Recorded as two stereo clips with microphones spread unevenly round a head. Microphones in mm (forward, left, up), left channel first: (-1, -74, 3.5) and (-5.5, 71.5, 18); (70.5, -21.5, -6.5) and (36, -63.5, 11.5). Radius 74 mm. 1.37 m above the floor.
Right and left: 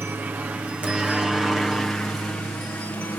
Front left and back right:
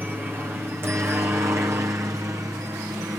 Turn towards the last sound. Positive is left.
turn(degrees=-160)